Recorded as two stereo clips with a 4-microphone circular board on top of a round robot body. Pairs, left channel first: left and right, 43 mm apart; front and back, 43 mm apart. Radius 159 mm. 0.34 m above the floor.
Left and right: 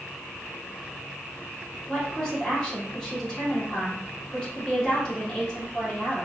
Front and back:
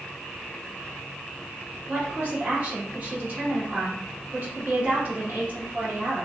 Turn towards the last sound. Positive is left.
turn(degrees=155)